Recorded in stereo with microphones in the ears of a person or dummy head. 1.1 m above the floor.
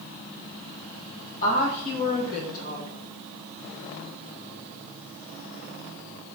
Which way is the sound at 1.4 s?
45° left (ahead or behind).